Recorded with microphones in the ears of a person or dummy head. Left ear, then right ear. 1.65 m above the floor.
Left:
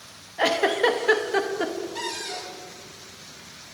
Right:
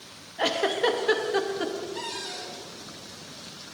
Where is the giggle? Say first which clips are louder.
Left 4 dB; centre (ahead or behind), 1.1 m.